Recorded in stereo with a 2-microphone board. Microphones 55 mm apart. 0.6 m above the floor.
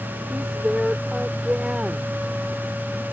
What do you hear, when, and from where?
0.3 s a woman speaking: 15° right (ahead or behind)